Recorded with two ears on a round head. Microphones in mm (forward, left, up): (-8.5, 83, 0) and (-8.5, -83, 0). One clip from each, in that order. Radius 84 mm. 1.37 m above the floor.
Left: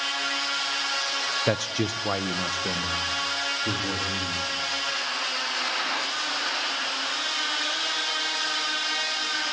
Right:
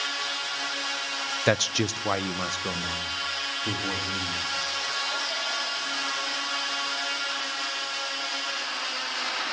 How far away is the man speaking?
About 0.7 m.